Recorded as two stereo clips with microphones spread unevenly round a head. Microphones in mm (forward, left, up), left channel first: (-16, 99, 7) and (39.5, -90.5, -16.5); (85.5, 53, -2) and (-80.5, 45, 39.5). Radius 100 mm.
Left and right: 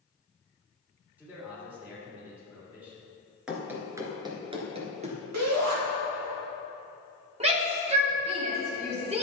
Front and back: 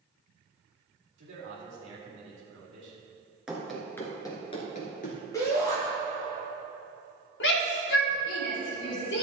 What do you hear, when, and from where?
1.2 s a man speaking: 160° right, 3.5 m
3.5 s running footsteps: 170° right, 1.7 m; by 5.2 s 30° right, 2 m
5.3 s a shout: 75° right, 2.5 m
7.4 s a shout: 15° right, 2.5 m